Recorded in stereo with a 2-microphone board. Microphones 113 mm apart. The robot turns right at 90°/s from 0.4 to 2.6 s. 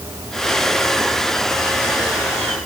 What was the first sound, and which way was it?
Only background noise.